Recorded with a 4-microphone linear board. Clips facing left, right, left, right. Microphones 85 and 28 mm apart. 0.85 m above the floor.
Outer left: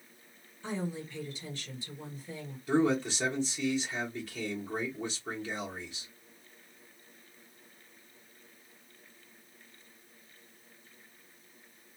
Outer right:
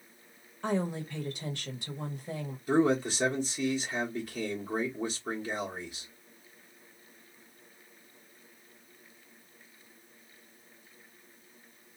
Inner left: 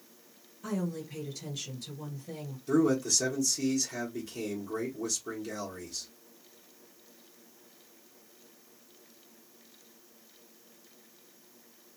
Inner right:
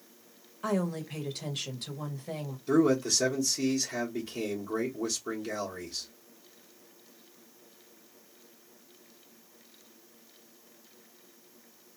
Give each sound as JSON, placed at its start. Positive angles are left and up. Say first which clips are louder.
{"t": 0.6, "sound": "a woman speaking", "louder": "outer right 5 dB, inner right 4 dB", "side_deg": -60, "distance_m": 1.2}
{"t": 2.7, "sound": "a man speaking", "louder": "outer right 2 dB, inner right 2 dB", "side_deg": -15, "distance_m": 1.1}